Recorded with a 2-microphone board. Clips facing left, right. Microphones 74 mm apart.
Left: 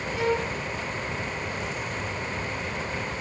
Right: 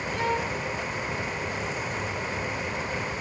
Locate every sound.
0.1 s a violin: 5° left (ahead or behind), 7 m